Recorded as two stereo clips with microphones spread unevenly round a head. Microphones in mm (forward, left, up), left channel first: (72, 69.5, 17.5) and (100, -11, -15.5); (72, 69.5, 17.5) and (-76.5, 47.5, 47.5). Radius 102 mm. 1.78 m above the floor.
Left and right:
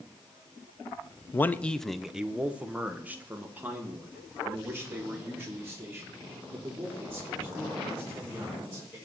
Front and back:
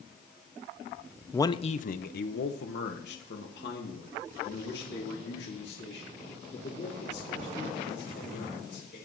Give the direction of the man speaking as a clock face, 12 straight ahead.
9 o'clock.